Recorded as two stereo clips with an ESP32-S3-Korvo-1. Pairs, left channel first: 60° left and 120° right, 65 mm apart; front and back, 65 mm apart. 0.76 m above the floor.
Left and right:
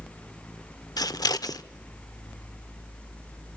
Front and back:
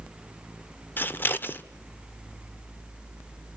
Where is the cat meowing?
I don't hear a cat meowing.